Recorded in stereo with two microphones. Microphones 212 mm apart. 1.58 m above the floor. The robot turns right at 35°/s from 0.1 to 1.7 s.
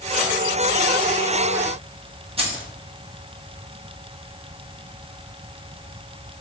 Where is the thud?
I don't hear a thud.